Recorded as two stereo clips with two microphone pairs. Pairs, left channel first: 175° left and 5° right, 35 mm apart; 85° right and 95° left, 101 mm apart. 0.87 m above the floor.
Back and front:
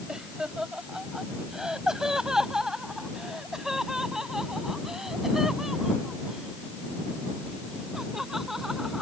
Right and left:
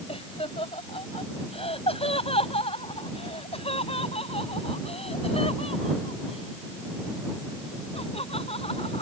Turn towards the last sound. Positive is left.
turn(degrees=-85)